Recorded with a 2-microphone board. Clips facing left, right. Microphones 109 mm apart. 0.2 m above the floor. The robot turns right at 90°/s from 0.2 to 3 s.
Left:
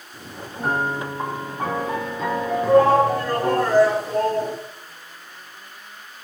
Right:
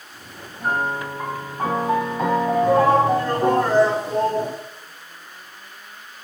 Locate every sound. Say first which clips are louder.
0.6 s a piano: even; 100° left, 5.5 m; by 3.6 s 45° right, 5.5 m
2.6 s a shout: left 3 dB; 175° left, 2.5 m; by 4.5 s 150° right, 2.5 m